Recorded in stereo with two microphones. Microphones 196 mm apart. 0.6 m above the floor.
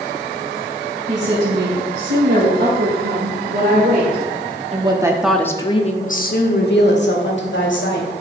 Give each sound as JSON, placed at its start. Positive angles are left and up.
{"t": 1.1, "sound": "a woman speaking", "side_deg": -70, "distance_m": 3.5}